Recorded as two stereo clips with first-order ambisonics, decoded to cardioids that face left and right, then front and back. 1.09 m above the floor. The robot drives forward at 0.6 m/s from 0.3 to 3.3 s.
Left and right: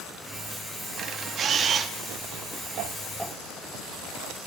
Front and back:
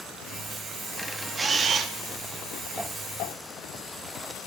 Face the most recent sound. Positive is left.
turn(degrees=-165)